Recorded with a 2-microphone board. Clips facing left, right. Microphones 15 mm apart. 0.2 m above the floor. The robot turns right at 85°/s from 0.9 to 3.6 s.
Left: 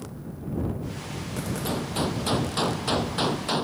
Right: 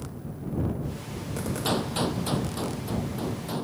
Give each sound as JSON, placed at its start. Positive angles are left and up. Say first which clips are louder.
{"t": 1.6, "sound": "a gunshot", "louder": "right 2 dB", "azimuth_deg": -35}